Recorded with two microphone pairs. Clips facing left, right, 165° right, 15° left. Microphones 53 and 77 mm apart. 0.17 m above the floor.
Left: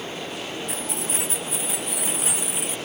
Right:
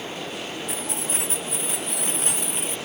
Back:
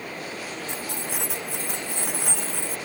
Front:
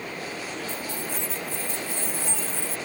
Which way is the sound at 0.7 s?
Straight behind.